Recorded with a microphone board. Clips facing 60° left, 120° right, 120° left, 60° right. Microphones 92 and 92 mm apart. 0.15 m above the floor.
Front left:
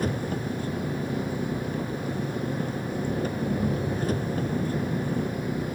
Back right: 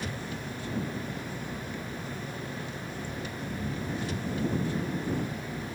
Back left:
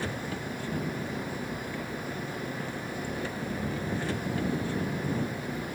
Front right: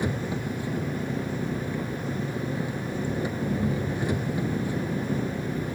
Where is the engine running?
15° left.